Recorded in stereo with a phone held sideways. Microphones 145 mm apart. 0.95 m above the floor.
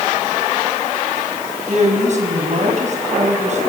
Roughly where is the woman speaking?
Right.